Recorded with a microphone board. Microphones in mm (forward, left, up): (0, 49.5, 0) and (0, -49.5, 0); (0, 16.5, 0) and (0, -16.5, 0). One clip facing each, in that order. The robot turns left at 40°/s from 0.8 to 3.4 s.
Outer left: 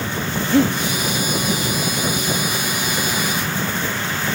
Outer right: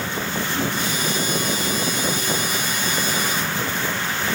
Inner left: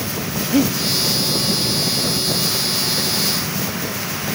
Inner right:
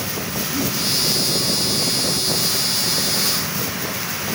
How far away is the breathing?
About 1.5 m.